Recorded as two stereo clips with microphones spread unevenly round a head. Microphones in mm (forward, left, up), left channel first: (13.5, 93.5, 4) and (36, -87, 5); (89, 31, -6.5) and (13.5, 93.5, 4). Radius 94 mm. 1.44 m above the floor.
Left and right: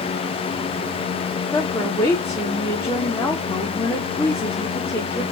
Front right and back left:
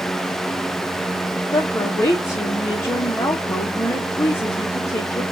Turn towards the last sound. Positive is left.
turn(degrees=20)